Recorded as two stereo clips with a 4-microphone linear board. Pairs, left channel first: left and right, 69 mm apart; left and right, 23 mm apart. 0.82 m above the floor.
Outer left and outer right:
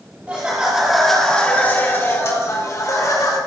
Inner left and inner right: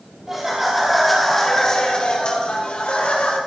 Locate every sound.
0.3 s laughter: 20° right (ahead or behind), 2.5 m; by 3.4 s 65° left (ahead or behind), 3.5 m